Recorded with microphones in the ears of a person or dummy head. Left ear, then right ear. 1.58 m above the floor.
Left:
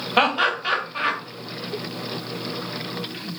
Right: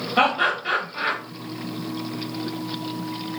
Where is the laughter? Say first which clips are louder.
Even; 50° left (ahead or behind), 1.2 m.